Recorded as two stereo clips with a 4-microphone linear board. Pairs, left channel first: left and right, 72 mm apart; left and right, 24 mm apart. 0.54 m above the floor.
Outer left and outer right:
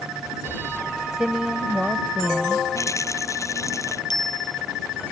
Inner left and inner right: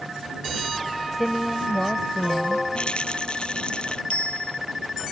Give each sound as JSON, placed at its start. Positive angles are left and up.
{"t": 1.1, "sound": "a woman speaking", "side_deg": -10}
{"t": 2.8, "sound": "a rattle", "side_deg": 40}
{"t": 4.1, "sound": "a bicycle bell", "side_deg": 65}